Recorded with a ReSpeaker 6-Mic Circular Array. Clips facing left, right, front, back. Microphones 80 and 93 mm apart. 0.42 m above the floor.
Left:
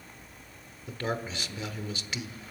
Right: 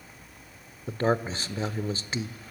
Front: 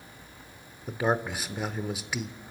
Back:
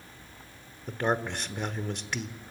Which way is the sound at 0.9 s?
80° right.